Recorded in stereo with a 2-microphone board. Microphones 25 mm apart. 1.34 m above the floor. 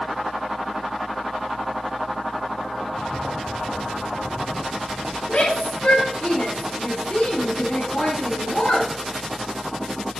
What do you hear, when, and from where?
2.8 s footsteps: 35° right (ahead or behind), 1.8 m; by 5.2 s 15° right (ahead or behind), 2 m
5.3 s a shout: 55° left (ahead or behind), 3 m